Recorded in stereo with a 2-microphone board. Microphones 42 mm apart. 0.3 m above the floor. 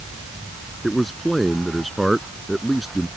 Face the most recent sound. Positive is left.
turn(degrees=-10)  # may be behind; listen again after turning